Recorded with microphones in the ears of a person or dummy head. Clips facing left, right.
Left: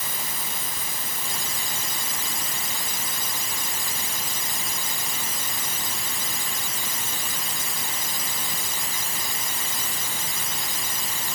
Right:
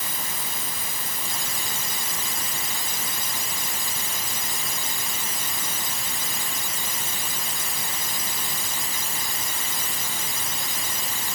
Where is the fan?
No fan in this recording.